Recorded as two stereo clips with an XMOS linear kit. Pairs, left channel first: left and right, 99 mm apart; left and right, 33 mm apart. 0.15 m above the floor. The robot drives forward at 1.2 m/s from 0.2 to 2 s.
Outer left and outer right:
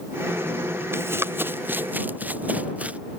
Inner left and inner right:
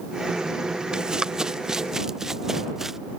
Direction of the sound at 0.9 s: 25° right (ahead or behind).